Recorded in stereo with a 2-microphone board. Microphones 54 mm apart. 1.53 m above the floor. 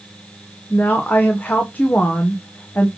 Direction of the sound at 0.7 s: 30° left (ahead or behind).